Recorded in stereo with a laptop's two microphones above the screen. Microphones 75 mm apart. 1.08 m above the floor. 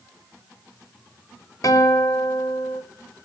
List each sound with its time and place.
1.6 s a guitar: 50° left (ahead or behind), 5.5 m